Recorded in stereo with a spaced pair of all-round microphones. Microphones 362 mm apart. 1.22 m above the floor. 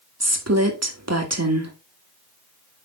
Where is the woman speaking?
50° right (ahead or behind), 1.7 m.